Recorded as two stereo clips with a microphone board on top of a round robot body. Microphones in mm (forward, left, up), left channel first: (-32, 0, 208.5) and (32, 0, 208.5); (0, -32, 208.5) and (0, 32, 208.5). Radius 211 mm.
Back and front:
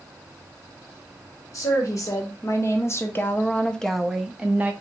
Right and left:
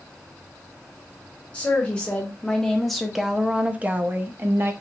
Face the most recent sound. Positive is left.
turn(degrees=60)